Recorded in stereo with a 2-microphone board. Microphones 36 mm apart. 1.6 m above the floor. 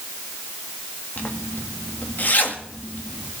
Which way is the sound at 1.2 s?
55° left (ahead or behind).